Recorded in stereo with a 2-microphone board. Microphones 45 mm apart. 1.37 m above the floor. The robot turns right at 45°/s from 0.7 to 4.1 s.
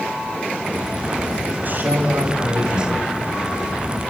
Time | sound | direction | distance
1.6 | a man speaking | 145° right | 6 m